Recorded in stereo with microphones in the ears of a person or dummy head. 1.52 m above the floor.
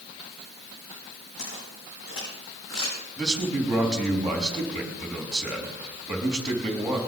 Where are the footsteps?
70° left (ahead or behind), 8 m; by 3.0 s 75° left (ahead or behind), 6 m.